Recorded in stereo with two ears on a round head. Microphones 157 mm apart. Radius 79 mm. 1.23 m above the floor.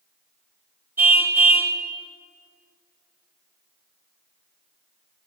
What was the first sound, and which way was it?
A car horn, 15° right (ahead or behind).